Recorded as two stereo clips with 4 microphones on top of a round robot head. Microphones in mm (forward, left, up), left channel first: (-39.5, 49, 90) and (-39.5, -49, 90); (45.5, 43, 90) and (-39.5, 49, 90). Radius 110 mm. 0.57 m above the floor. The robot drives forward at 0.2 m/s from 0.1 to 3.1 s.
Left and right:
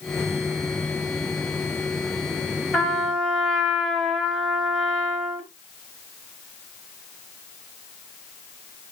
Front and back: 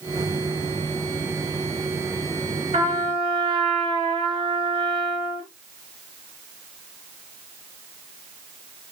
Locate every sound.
2.7 s a trumpet: 175° left, 3.5 m